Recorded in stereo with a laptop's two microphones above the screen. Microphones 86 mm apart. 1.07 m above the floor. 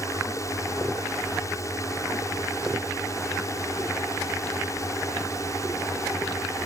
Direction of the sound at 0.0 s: 40° left (ahead or behind).